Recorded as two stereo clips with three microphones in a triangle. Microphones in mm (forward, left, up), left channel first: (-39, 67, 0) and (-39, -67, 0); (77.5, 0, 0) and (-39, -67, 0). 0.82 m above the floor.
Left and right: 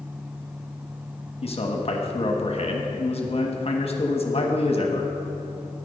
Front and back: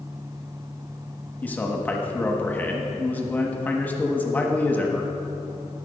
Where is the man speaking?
105° left, 1.2 m.